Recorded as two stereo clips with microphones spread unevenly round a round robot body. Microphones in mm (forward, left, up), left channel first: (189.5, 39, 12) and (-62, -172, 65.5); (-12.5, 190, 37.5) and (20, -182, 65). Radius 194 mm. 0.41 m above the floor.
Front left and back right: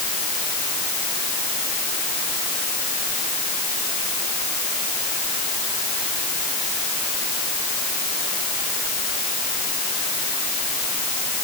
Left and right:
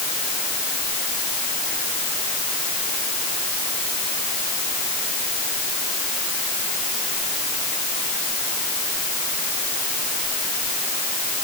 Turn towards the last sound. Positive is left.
No sound to turn to.